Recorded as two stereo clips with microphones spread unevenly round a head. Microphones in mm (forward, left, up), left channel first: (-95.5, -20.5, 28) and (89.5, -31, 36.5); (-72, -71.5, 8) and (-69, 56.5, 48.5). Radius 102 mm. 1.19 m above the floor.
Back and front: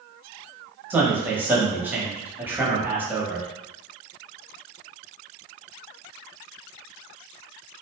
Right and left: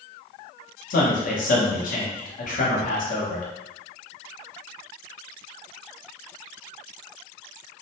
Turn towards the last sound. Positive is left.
turn(degrees=-85)